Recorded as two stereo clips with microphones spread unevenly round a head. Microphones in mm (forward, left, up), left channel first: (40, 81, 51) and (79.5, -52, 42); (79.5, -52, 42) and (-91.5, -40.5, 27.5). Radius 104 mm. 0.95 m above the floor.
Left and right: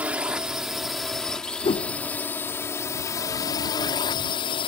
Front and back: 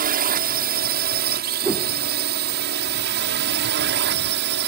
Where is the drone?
155° right; by 4.7 s 165° left.